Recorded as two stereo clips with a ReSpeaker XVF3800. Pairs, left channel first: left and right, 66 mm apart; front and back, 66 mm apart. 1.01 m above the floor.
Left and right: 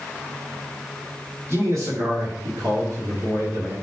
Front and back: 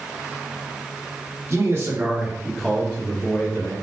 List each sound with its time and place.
1.5 s a man speaking: 135° right, 1.0 m; by 3.8 s 45° right, 1.1 m